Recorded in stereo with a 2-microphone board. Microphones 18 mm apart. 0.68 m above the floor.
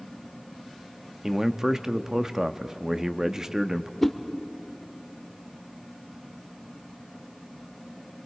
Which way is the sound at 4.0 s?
10° left (ahead or behind).